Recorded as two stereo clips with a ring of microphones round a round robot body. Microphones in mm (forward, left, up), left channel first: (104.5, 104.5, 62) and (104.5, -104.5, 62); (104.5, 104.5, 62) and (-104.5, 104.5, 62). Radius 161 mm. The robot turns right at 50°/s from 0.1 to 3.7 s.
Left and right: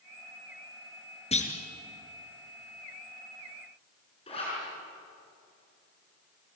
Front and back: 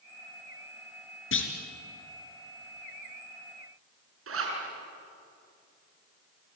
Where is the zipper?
160° left, 6 m.